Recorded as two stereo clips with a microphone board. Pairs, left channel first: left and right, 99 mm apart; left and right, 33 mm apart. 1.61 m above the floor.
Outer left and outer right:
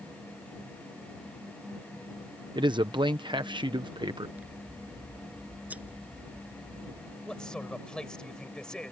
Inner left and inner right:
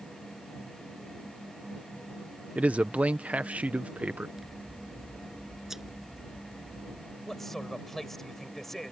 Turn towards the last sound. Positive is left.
turn(degrees=10)  # may be behind; listen again after turning